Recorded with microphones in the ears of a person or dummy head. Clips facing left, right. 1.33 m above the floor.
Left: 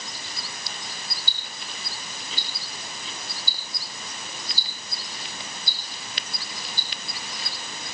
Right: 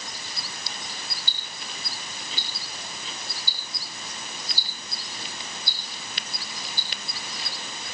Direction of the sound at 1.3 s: 50° left (ahead or behind).